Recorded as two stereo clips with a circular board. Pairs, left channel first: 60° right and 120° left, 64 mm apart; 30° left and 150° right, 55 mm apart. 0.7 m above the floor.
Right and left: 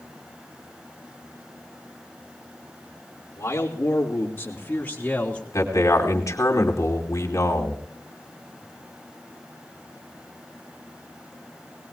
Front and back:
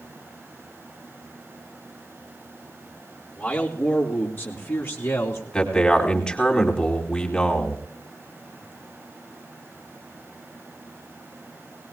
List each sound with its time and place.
3.4 s a man speaking: 40° right, 2 m; by 5.4 s 5° left, 2 m
5.5 s a man speaking: 40° right, 2.5 m